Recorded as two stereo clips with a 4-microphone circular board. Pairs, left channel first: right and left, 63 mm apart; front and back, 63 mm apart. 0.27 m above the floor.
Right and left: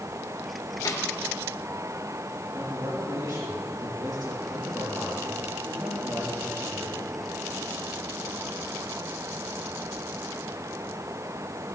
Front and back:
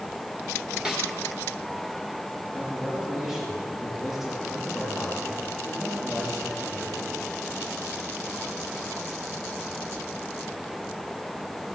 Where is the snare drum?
105° right, 3 m.